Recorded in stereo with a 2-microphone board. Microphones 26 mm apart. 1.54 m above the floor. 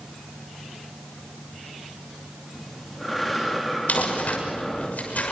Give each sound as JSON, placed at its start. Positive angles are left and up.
{"t": 2.5, "sound": "breathing", "side_deg": 0, "distance_m": 4.0}
{"t": 3.9, "sound": "crumpling", "side_deg": 75, "distance_m": 6.5}